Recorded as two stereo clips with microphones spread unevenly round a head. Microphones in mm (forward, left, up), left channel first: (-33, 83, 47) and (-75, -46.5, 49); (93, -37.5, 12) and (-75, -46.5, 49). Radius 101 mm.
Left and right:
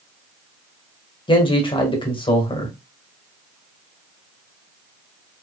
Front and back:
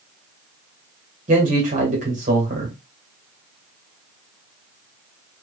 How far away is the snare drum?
I don't hear a snare drum.